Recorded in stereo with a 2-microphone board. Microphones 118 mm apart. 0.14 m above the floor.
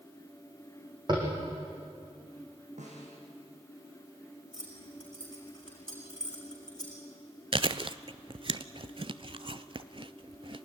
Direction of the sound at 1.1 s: 40° right (ahead or behind).